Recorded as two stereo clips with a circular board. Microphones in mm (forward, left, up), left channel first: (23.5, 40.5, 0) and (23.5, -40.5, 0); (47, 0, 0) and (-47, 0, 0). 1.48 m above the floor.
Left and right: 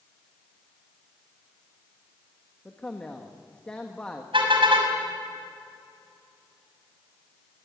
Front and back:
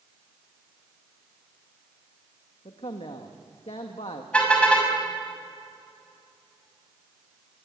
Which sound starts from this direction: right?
A car horn, at 4.3 s.